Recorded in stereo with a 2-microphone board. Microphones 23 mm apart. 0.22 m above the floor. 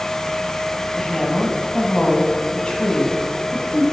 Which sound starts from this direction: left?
A woman speaking, at 1.0 s.